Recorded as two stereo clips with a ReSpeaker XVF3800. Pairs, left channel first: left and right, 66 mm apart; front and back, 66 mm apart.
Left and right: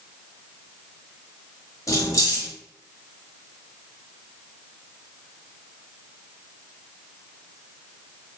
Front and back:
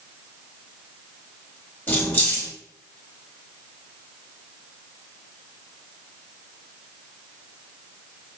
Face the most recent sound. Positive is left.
turn(degrees=65)